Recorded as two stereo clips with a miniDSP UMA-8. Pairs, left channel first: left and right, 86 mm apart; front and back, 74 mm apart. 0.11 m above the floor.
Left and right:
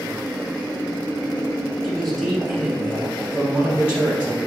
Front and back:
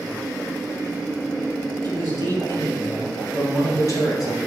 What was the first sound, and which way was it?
A man speaking, straight ahead.